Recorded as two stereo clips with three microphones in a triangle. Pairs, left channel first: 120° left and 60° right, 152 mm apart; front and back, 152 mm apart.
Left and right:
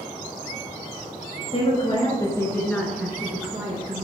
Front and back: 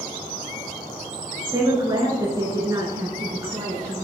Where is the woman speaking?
130° left, 2 m; by 4.0 s 110° right, 2 m.